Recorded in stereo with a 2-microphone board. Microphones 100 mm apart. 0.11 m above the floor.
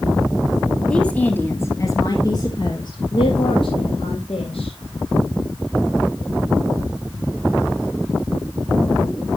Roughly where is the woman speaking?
Centre.